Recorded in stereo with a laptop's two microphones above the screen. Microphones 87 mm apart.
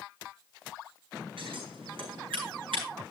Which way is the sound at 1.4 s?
90° right.